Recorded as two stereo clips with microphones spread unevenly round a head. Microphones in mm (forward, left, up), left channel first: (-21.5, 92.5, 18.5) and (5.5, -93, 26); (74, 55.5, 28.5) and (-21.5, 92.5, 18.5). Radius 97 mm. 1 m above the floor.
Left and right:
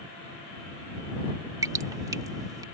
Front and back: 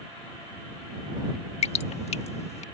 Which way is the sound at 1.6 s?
10° right.